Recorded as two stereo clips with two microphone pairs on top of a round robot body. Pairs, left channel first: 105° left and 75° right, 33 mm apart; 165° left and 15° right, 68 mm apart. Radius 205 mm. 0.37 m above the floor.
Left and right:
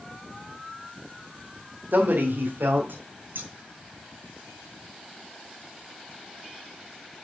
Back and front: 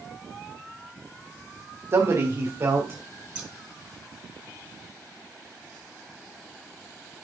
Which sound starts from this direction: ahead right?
A man speaking, at 1.9 s.